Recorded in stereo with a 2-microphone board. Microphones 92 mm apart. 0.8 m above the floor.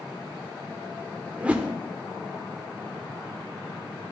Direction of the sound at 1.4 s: 15° right (ahead or behind).